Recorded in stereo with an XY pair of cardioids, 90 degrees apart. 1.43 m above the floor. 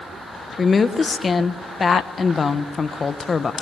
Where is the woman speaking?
40° left, 1.4 m.